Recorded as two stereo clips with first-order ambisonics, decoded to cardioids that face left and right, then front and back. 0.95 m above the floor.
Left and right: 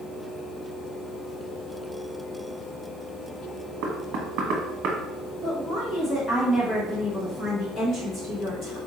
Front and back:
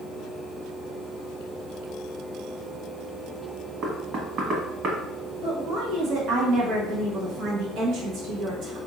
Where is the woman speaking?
150° left, 1.2 m.